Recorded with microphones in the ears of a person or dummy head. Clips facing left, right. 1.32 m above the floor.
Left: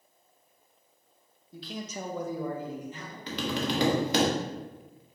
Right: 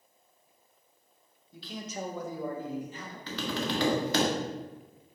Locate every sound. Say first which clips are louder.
1.5 s a man speaking: left 1 dB; 40° left (ahead or behind), 0.7 m; by 3.2 s 30° left (ahead or behind), 1.2 m
3.3 s tapping: left 2 dB; 15° left (ahead or behind), 0.6 m